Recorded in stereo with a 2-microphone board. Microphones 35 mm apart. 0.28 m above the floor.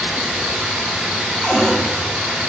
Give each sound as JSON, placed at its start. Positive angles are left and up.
{"t": 0.0, "sound": "running water", "side_deg": -75, "distance_m": 3.0}
{"t": 1.4, "sound": "a cupboard door", "side_deg": 0, "distance_m": 1.6}